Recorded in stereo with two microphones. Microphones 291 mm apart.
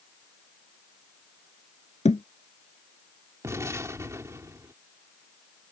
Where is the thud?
25° left (ahead or behind).